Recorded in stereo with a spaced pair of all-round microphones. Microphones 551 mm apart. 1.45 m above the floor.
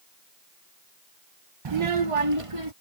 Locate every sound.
1.6 s a child speaking: 50° right (ahead or behind); by 2.7 s 70° right (ahead or behind)